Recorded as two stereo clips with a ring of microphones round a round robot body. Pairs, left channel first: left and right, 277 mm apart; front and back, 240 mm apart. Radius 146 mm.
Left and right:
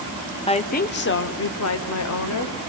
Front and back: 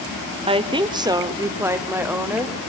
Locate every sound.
0.5 s a woman speaking: 140° left, 0.9 m; by 2.6 s 95° left, 2.0 m